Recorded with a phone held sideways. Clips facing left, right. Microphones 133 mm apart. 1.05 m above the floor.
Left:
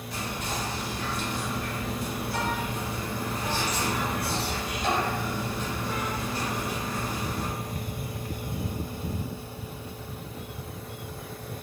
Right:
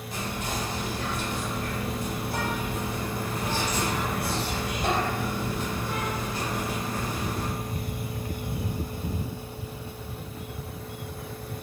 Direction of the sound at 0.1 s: 50° right (ahead or behind).